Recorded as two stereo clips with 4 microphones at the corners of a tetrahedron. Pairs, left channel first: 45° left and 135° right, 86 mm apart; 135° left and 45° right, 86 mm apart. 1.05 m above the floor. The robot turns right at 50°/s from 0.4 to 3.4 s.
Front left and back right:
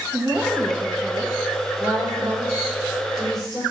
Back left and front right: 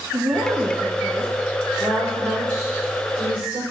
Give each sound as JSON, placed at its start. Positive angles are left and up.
{"t": 0.1, "sound": "a woman speaking", "azimuth_deg": -75, "distance_m": 1.1}
{"t": 1.8, "sound": "a woman speaking", "azimuth_deg": -120, "distance_m": 3.5}